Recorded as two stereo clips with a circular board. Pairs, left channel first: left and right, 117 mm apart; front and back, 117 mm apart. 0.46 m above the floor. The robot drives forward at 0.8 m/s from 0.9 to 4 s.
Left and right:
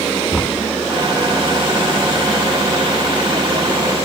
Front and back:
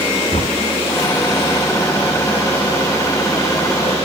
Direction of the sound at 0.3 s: 5° left.